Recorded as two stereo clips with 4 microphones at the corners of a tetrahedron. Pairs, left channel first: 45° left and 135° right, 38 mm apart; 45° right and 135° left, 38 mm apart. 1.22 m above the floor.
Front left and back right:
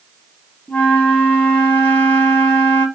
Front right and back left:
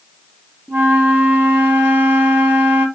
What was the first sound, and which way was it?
A flute, 100° left.